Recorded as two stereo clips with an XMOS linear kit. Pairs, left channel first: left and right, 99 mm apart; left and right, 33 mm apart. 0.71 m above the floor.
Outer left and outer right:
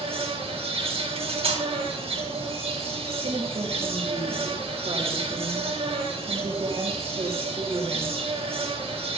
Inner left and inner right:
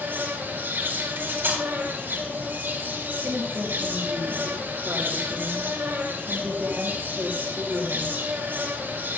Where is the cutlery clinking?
80° right, 3 m.